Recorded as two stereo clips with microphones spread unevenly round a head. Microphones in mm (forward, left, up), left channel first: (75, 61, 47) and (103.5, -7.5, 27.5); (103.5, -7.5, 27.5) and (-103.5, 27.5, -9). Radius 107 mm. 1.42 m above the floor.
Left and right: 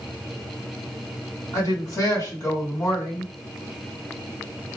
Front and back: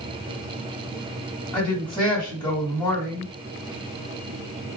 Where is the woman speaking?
65° left, 2 m.